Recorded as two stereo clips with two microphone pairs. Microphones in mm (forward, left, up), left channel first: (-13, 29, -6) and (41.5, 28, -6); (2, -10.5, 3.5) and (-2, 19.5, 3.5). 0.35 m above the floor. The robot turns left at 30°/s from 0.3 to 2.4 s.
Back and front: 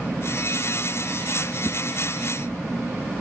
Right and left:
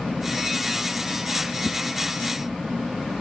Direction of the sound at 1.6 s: 130° right.